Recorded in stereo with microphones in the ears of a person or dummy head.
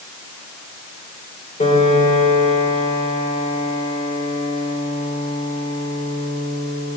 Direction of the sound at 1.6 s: 35° left (ahead or behind).